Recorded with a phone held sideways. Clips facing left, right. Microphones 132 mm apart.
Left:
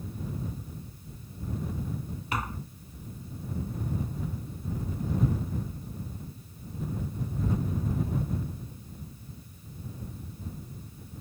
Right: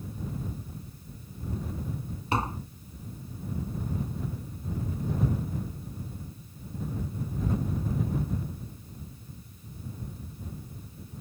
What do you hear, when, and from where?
2.3 s tapping: 30° right (ahead or behind)